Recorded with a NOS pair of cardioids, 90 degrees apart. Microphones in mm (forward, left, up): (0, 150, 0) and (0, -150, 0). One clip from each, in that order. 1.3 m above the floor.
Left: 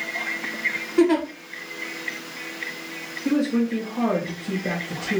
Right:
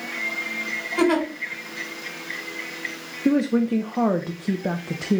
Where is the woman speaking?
45° right, 0.6 m.